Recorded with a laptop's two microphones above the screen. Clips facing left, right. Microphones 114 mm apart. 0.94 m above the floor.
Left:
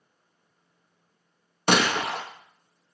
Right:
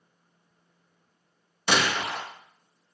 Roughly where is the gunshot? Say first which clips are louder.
Left 3 dB; left.